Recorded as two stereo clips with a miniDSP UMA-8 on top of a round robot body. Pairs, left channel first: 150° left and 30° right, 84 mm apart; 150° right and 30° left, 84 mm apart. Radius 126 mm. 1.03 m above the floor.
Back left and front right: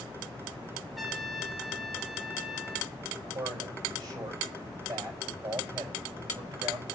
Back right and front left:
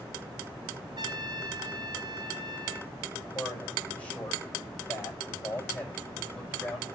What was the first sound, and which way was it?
A trumpet, 60° left.